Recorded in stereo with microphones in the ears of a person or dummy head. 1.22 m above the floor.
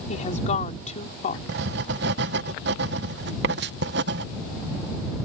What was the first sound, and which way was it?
A woman speaking, 40° left (ahead or behind).